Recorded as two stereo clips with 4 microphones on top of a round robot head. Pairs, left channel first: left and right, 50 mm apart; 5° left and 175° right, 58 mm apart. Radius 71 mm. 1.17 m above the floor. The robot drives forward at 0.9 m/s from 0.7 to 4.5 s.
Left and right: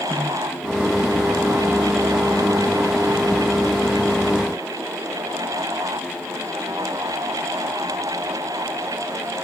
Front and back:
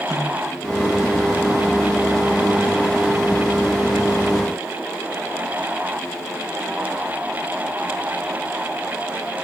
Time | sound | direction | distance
0.1 | a snare drum | 95° left | 4 m